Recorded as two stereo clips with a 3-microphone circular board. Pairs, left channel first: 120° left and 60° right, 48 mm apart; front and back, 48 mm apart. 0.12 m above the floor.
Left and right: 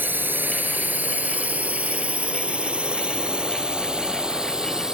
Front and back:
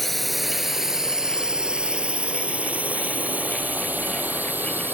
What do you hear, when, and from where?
0.0 s a drone: 85° right; by 4.9 s 135° right